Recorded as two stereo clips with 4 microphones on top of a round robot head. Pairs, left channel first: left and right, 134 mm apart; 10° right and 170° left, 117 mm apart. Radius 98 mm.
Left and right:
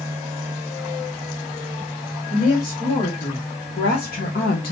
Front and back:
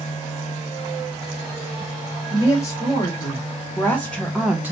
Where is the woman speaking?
45° left, 1.8 m; by 4.7 s 100° left, 0.6 m.